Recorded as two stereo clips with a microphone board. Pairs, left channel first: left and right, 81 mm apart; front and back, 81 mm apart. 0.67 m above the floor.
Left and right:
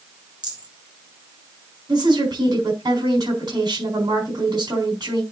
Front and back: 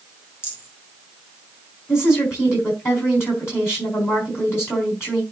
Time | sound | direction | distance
0.4 | a rattle | 60° right | 3.5 m
1.9 | a woman speaking | 55° right | 4 m